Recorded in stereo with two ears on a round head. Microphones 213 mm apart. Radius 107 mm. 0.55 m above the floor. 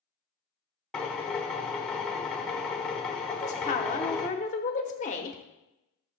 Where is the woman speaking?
30° left (ahead or behind), 1.2 m.